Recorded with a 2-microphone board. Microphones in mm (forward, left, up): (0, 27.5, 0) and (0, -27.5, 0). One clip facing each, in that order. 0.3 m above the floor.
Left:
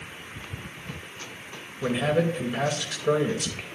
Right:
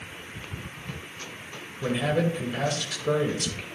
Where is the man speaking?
10° left (ahead or behind), 0.9 m.